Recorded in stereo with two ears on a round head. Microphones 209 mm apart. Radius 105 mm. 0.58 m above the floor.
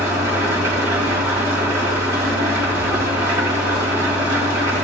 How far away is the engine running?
About 3 m.